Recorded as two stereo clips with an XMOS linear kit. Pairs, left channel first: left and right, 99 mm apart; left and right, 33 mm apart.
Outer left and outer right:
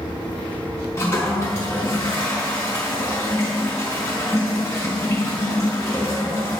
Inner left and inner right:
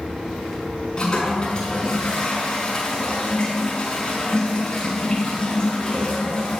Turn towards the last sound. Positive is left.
turn(degrees=30)  # may be behind; listen again after turning